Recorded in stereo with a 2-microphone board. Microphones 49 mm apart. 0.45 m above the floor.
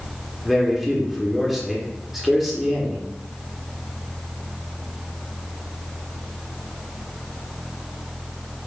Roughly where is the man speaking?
Centre.